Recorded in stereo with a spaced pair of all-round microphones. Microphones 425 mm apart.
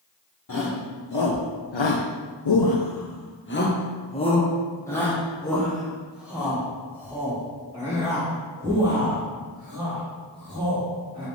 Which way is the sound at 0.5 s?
45° left (ahead or behind).